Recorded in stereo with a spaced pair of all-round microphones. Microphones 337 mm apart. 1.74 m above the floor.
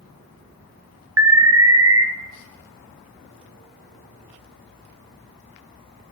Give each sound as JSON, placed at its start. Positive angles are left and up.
{"t": 1.2, "sound": "an alarm", "side_deg": -45, "distance_m": 0.7}